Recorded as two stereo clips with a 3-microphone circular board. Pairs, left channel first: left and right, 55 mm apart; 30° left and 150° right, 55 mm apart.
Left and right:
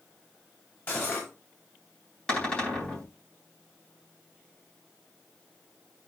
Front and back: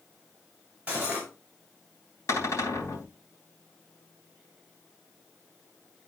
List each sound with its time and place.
0.9 s cutlery clinking: 140° left, 5 m
2.3 s a cupboard door: 15° left, 4 m